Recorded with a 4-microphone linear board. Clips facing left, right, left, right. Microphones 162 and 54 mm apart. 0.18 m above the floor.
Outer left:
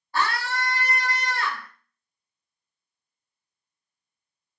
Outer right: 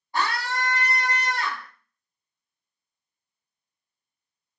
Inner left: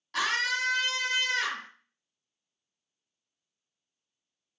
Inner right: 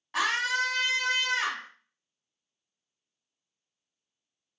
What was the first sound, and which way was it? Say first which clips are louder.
A scream: even, inner right 1 dB; 20° right (ahead or behind).